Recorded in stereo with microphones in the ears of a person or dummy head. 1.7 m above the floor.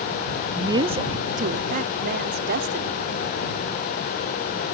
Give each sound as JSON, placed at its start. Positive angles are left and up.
{"t": 0.5, "sound": "a woman speaking", "side_deg": -25}